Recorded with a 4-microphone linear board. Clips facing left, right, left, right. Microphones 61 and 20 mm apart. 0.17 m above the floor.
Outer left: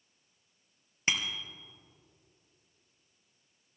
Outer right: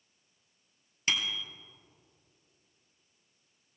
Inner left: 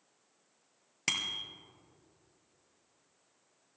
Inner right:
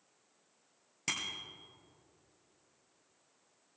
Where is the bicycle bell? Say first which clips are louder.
Even, inner left 4 dB; 25° left (ahead or behind), 2.5 m.